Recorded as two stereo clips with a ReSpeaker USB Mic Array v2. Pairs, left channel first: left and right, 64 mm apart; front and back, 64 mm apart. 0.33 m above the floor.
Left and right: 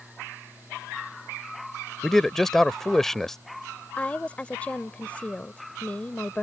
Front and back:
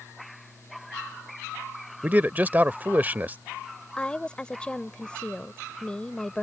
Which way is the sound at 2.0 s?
170° left.